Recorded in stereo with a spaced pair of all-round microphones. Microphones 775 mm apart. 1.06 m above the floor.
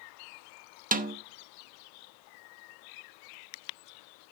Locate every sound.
0.9 s a snare drum: 10° right (ahead or behind), 0.8 m